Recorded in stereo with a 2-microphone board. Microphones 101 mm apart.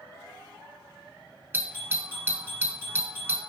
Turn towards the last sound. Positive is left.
turn(degrees=-25)  # may be behind; listen again after turning